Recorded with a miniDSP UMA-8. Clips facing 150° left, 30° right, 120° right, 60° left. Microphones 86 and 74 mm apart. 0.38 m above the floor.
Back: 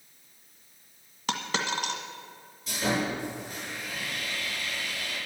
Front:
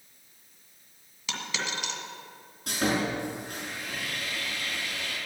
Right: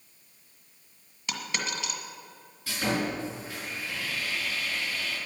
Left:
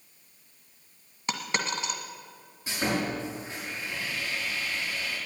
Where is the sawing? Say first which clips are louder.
Front 1 dB, even; 10° right, 6 m.